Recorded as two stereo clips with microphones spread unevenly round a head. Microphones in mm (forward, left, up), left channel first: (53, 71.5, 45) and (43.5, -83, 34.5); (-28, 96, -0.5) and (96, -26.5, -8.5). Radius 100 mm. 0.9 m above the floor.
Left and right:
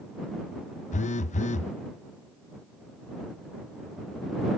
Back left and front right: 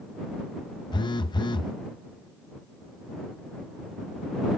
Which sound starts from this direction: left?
A phone buzzing, at 0.9 s.